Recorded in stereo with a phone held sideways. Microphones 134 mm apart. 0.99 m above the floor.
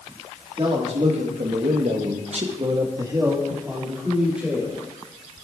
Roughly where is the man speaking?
Right.